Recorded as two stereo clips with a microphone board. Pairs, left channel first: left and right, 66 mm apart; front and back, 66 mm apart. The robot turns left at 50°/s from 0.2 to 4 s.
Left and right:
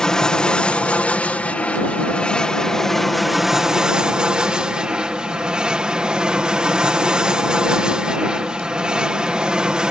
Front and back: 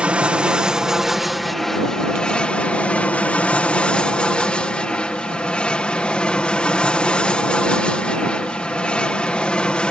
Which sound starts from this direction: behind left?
An aircraft, at 0.0 s.